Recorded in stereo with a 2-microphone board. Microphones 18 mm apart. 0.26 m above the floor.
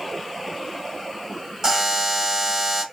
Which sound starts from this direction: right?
A buzzer, at 1.6 s.